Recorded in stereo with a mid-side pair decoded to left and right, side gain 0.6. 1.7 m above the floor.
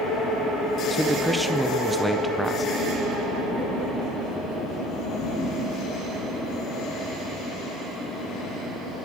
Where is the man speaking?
5° right, 1.6 m.